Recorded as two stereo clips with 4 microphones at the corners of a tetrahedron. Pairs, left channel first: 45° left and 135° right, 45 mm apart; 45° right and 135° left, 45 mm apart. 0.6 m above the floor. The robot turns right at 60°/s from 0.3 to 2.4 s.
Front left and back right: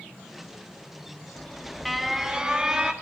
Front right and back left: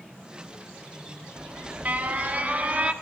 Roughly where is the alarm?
Left.